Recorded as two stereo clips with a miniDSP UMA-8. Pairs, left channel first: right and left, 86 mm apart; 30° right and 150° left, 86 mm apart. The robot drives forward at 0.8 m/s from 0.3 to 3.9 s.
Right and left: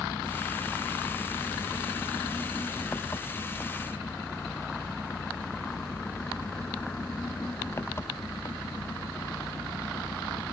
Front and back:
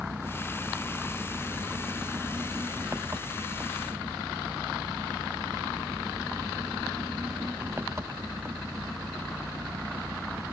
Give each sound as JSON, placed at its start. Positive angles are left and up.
{"t": 0.0, "sound": "an engine running", "azimuth_deg": -150}